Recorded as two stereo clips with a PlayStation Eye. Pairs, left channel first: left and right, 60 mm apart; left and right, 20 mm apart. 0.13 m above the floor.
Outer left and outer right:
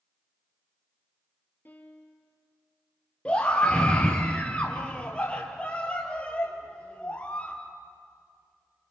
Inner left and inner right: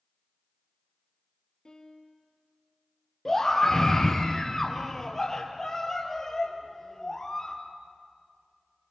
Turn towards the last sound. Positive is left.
turn(degrees=20)  # may be behind; listen again after turning